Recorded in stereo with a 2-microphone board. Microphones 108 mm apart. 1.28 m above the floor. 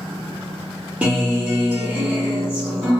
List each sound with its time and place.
1.0 s a guitar: 15° right (ahead or behind), 0.9 m